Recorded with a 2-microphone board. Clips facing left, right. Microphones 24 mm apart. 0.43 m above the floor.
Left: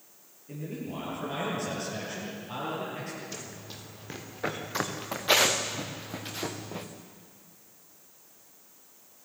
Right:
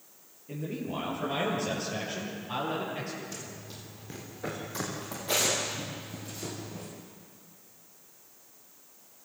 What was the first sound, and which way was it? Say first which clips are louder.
A man speaking: right 2 dB; 15° right (ahead or behind).